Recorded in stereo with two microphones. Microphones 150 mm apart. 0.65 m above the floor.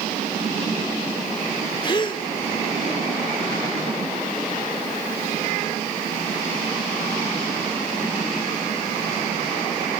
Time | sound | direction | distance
1.8 | a gasp | 30° left (ahead or behind) | 2.0 m